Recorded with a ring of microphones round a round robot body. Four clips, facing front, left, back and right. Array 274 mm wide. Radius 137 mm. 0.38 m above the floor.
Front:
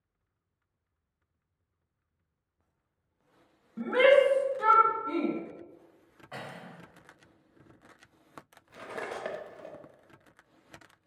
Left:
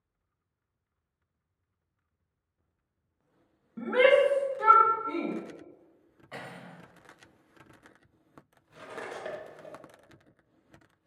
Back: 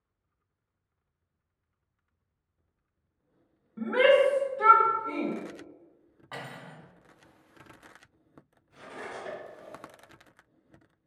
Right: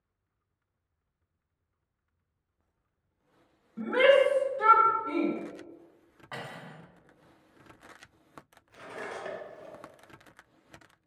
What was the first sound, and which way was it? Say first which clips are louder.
A shout: even, even; 50° left.